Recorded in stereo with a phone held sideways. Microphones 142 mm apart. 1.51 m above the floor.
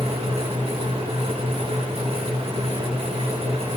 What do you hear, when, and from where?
0.0 s a fan: 45° right (ahead or behind), 3 m